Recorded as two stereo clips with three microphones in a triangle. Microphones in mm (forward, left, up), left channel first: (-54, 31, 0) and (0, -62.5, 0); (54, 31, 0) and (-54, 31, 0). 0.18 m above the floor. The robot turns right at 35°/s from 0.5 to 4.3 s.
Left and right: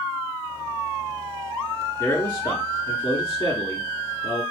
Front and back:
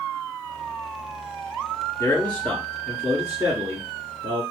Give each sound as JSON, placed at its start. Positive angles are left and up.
{"t": 2.0, "sound": "a man speaking", "azimuth_deg": 65, "distance_m": 3.0}